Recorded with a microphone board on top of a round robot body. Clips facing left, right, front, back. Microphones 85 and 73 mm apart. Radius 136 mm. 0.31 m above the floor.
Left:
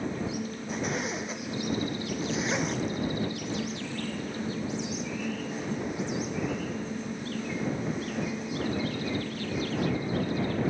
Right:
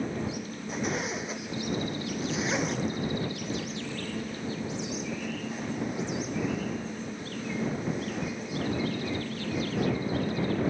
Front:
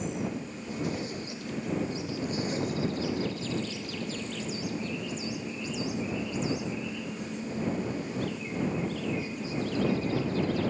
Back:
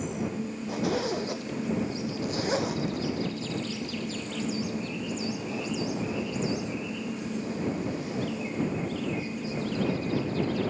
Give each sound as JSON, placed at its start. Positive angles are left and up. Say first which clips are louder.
{"t": 0.7, "sound": "a zipper", "louder": "right 1 dB, back 5 dB", "azimuth_deg": 180}